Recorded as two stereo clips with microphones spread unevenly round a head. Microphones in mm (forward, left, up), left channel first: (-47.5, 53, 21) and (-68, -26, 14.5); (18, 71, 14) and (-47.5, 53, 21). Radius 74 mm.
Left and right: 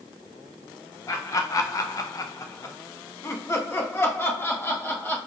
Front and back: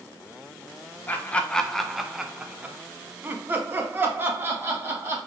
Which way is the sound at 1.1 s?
35° left.